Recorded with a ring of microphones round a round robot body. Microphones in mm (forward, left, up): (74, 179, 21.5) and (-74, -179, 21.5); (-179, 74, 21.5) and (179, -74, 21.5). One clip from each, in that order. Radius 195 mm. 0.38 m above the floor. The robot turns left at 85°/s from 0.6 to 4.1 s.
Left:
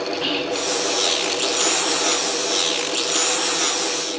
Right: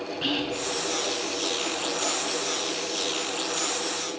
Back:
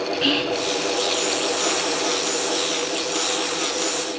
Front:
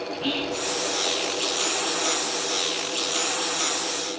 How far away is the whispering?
About 5.5 m.